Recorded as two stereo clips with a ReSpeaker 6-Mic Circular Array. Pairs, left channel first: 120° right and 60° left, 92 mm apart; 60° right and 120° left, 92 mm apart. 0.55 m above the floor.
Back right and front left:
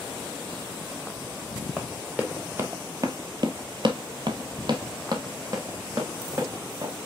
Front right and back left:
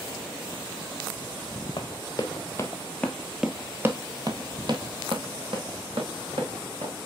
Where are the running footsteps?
20° right, 1.4 m; by 6.9 s 115° left, 2.5 m.